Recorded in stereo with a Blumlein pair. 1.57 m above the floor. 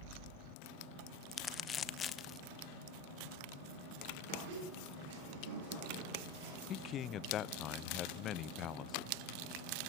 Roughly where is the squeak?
Ahead right.